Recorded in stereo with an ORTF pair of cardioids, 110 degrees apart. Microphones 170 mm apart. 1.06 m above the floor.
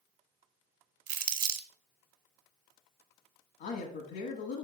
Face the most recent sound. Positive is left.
turn(degrees=70)